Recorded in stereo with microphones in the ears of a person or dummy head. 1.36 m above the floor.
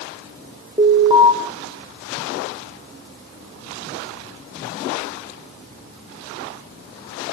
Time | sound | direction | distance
0.8 | an alarm | 30° right (ahead or behind) | 1.7 m